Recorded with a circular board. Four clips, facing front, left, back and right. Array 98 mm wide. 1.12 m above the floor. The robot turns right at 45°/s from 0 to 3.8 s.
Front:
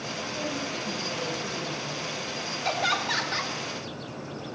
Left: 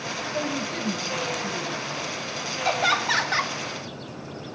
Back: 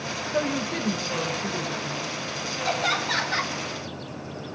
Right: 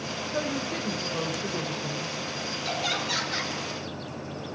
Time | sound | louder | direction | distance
0.3 | a woman speaking | left 1 dB, back 8 dB | 165° right | 4 m
2.6 | laughter | left 8 dB, back 1 dB | 70° left | 1.8 m